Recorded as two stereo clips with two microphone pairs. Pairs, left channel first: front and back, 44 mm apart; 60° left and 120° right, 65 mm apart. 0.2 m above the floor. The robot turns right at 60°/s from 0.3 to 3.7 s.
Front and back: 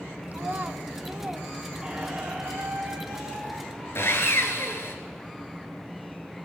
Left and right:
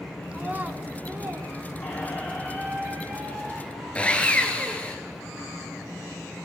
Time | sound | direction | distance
0.3 | a child speaking | 165° left | 0.8 m
1.8 | a squeak | 110° left | 3.5 m
4.0 | sawing | 10° right | 1.3 m